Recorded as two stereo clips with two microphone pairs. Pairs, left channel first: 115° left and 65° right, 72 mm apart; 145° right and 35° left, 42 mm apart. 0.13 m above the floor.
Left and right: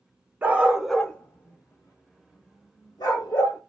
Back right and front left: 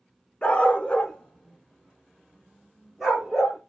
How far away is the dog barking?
About 0.6 m.